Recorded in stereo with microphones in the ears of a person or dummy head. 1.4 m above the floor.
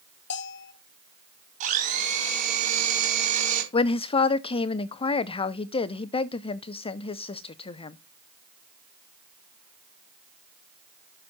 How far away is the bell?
About 1.6 m.